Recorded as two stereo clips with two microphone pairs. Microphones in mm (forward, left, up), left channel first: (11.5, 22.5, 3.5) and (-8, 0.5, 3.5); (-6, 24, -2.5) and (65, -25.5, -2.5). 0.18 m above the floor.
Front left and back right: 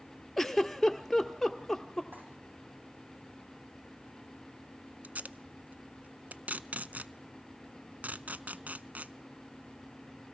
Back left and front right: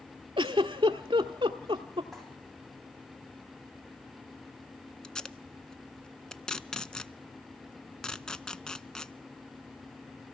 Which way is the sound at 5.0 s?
130° right.